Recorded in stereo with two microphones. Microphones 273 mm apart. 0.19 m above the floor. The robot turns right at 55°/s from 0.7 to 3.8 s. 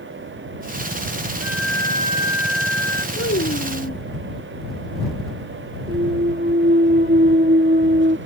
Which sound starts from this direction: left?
A child speaking, at 3.1 s.